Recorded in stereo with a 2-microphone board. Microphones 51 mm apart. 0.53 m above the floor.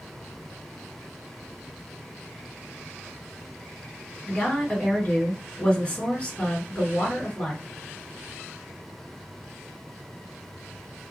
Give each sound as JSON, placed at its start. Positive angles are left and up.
{"t": 4.3, "sound": "a woman speaking", "side_deg": 25, "distance_m": 1.8}